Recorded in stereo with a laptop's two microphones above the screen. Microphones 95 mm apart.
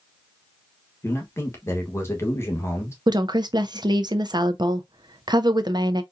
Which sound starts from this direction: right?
A woman speaking, at 3.1 s.